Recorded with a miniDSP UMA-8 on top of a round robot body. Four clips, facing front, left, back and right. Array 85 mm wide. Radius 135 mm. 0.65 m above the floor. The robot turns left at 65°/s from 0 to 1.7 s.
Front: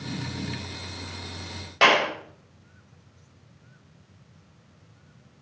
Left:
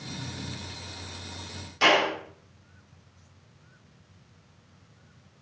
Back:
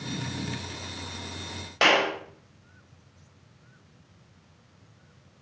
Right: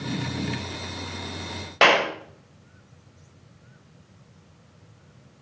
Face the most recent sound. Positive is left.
turn(degrees=-95)